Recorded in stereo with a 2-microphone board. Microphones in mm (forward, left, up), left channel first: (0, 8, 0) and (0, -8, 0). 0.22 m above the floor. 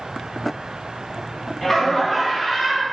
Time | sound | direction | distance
1.6 | laughter | 15° left (ahead or behind) | 1.4 m